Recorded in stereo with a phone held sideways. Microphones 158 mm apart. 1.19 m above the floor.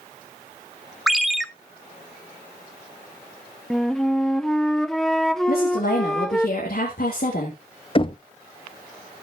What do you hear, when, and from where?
1.1 s a ringtone: centre (ahead or behind), 0.6 m
3.7 s a flute: centre (ahead or behind), 0.5 m
5.5 s a woman speaking: 75° left (ahead or behind), 2.5 m
8.0 s knocking: 35° left (ahead or behind), 0.5 m